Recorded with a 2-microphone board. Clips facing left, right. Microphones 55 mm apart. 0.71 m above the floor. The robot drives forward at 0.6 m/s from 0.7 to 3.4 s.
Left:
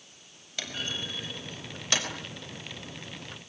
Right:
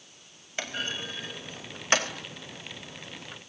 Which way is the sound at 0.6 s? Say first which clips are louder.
Right 2 dB; 30° right (ahead or behind).